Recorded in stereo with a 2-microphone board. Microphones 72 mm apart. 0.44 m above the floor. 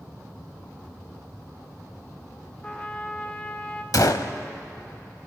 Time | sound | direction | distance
2.6 | a trumpet | 25° left (ahead or behind) | 0.9 m
3.9 | a gunshot | 60° left (ahead or behind) | 0.6 m